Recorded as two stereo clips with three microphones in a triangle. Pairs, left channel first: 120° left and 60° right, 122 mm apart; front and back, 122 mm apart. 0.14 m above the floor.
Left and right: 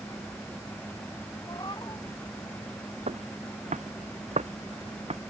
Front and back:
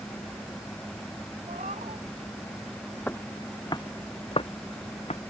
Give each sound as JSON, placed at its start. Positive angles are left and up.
{"t": 1.5, "sound": "a cat meowing", "azimuth_deg": 175}
{"t": 3.1, "sound": "footsteps", "azimuth_deg": -75}